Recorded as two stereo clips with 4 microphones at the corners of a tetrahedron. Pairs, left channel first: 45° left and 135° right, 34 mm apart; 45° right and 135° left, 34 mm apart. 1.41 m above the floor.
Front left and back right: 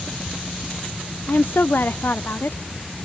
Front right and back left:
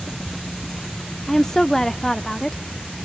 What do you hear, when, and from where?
1.3 s a woman speaking: 30° left, 0.6 m